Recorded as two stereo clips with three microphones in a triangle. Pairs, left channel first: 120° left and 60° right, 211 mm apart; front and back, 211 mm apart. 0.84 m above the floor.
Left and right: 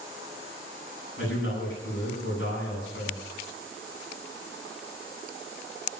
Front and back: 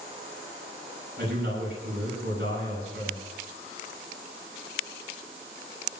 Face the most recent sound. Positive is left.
turn(degrees=135)